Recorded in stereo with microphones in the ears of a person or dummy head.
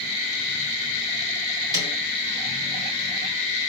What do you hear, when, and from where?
1.7 s a snare drum: 20° right (ahead or behind), 4 m